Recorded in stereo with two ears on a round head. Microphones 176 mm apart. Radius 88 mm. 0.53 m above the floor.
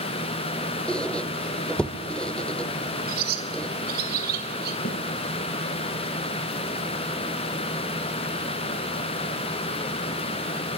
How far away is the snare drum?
About 3 m.